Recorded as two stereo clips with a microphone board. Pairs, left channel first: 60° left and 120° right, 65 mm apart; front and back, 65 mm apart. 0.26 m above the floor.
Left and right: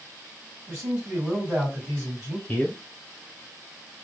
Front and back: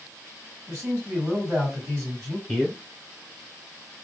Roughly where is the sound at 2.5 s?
Left.